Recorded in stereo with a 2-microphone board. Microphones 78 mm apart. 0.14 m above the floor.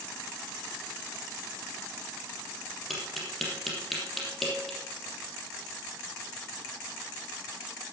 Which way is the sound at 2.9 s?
Centre (ahead or behind).